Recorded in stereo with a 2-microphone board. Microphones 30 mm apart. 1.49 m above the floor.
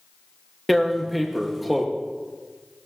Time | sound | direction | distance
0.7 | tearing paper | centre (ahead or behind) | 1.3 m